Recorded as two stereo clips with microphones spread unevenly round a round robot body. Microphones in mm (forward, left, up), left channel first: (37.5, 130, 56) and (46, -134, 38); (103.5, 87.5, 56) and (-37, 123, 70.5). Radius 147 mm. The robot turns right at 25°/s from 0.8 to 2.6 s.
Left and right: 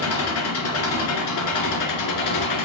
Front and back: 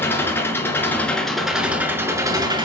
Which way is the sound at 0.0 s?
60° left.